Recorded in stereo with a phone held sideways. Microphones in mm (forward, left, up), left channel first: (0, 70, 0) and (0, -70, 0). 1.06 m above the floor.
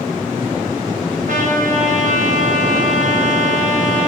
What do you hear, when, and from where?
1.3 s a trumpet: 65° right (ahead or behind), 5 m